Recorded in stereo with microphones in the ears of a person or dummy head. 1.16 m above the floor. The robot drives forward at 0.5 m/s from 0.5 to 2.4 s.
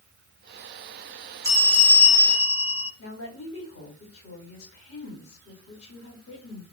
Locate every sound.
1.4 s a bell: 15° right (ahead or behind), 0.9 m; by 2.9 s 10° right (ahead or behind), 1.3 m
3.0 s a woman speaking: 85° left, 2.0 m